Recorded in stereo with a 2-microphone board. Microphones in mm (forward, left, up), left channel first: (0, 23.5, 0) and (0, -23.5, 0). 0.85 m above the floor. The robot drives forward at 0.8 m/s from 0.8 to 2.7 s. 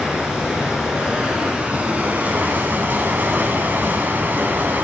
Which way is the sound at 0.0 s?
20° right (ahead or behind).